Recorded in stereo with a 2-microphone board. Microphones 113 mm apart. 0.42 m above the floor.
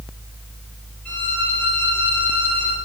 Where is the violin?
10° left (ahead or behind), 9.5 m.